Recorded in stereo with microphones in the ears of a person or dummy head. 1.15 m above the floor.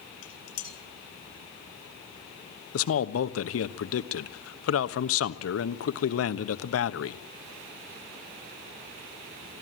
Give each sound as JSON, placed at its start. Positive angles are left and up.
{"t": 0.2, "sound": "dishes clattering", "side_deg": 75, "distance_m": 5.0}
{"t": 2.7, "sound": "a man speaking", "side_deg": 80, "distance_m": 1.1}